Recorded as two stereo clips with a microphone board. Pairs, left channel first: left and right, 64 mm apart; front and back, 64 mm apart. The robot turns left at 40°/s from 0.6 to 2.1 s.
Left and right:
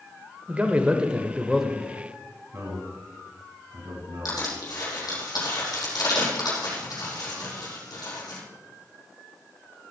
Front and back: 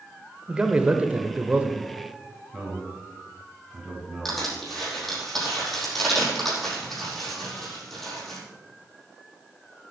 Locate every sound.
0.5 s a man speaking: 135° right, 0.9 m; by 1.8 s 175° left, 0.9 m
2.5 s a man speaking: 95° right, 3.5 m
4.2 s crushing: 85° left, 5 m